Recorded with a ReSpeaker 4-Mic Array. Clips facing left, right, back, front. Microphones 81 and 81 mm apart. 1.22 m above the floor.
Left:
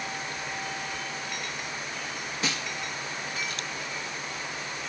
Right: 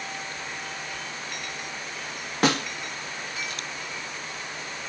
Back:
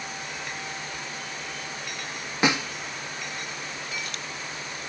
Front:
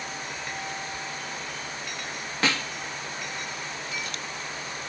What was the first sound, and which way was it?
A snare drum, 110° right.